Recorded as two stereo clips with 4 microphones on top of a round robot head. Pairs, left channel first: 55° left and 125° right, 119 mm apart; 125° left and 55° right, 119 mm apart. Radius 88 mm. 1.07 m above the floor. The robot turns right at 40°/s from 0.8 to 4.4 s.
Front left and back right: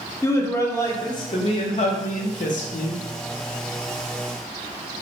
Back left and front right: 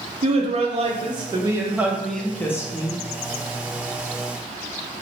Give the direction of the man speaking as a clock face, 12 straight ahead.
12 o'clock.